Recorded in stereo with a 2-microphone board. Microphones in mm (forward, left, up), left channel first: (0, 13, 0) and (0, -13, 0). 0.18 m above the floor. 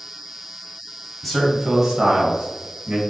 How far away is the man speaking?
About 1.5 m.